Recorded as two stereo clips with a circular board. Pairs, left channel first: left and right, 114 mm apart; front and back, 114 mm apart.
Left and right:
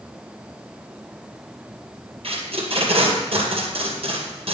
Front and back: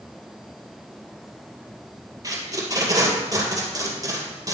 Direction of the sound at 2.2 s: 125° right.